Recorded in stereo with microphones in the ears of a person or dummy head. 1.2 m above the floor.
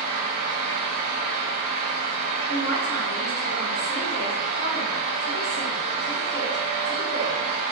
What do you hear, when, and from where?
0.0 s a fan: 45° right (ahead or behind), 1.1 m
2.5 s a man speaking: 55° left (ahead or behind), 0.9 m